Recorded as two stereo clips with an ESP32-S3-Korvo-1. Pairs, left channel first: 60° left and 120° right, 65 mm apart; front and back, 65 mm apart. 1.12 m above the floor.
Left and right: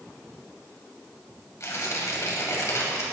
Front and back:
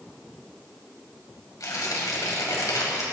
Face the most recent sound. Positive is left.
turn(degrees=25)